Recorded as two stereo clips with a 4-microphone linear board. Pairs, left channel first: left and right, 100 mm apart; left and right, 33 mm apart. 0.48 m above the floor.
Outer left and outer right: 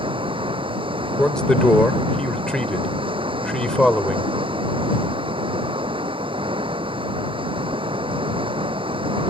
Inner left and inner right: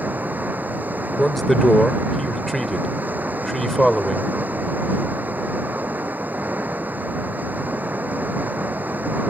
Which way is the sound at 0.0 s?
60° right (ahead or behind).